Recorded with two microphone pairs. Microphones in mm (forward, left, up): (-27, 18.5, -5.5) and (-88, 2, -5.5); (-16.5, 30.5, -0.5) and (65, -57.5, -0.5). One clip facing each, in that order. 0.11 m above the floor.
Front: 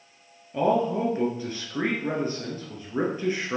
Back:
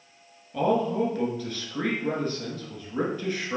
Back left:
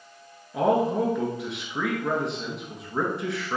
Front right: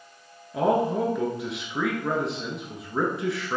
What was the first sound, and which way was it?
A man speaking, 40° left.